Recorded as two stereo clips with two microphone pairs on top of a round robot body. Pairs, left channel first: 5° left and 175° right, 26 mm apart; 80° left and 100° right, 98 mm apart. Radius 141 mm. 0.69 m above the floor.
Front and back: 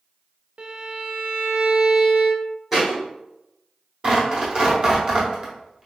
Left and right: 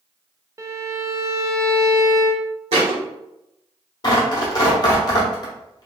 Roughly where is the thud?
Right.